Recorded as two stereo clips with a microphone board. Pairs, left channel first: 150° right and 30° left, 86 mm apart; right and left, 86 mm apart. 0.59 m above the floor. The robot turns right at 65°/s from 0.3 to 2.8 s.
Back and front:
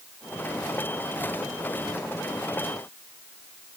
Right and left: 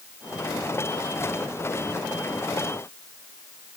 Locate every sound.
Only background noise.